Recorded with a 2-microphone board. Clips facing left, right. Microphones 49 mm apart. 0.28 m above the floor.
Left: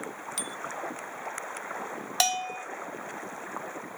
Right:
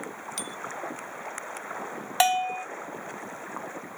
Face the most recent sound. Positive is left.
turn(degrees=-25)  # may be behind; listen again after turning